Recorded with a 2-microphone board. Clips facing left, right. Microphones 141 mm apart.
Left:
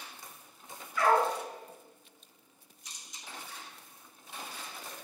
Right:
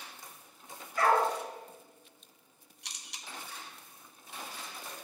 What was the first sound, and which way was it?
A dog barking, 40° right (ahead or behind).